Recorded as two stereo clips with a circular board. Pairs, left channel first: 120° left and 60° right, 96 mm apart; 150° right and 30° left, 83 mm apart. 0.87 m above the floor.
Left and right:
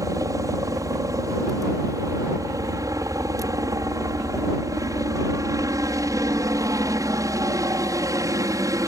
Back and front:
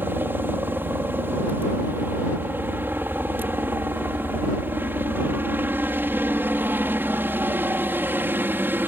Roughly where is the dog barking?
I don't hear a dog barking.